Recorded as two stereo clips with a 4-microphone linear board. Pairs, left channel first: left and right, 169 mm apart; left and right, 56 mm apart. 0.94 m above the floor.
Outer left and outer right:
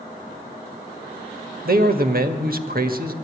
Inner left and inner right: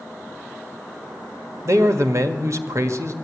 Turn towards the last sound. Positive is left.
turn(degrees=-60)  # may be behind; listen again after turning